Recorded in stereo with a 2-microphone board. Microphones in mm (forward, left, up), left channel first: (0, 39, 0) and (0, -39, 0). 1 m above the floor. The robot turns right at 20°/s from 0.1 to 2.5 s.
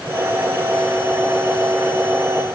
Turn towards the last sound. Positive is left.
No sound to turn to.